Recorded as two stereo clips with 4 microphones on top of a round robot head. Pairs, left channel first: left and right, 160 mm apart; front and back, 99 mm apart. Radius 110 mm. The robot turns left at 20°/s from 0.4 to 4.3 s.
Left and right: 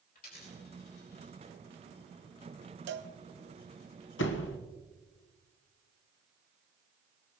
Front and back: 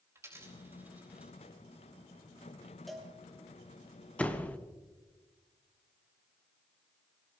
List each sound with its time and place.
0.1 s a dropped coin: 120° left, 4.5 m; by 1.3 s 100° left, 4.5 m
2.9 s a cowbell: 90° right, 1.0 m; by 3.1 s 95° right, 1.0 m
4.2 s a door slam: 75° left, 1.0 m